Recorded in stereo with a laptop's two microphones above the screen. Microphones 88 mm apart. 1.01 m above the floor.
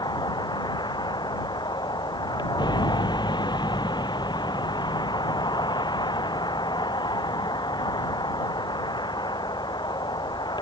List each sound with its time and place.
0.0 s a vehicle: 55° left (ahead or behind)